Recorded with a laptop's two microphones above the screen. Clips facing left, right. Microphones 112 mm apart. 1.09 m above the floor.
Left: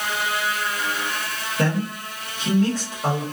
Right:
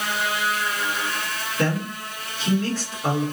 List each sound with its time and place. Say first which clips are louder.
1.6 s a man speaking: left 1 dB; 40° left (ahead or behind), 1.3 m